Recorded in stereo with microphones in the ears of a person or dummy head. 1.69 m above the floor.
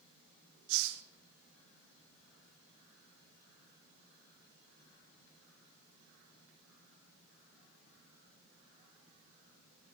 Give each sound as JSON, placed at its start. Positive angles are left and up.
{"t": 0.7, "sound": "a hiss", "side_deg": -75, "distance_m": 1.0}